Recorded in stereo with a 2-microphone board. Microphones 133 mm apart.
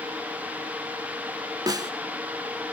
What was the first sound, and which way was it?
A snare drum, 30° right (ahead or behind).